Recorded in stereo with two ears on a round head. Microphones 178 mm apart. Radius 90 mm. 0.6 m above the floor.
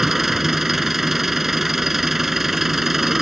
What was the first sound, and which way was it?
An engine running, centre (ahead or behind).